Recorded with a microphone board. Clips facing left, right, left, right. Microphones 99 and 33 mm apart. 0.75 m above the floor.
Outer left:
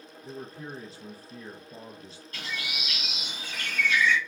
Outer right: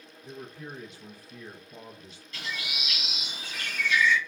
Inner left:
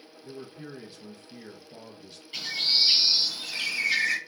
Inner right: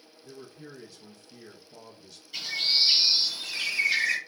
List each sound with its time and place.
0.2 s a man speaking: 35° left (ahead or behind), 0.6 m
2.3 s a bird: 50° left (ahead or behind), 1.6 m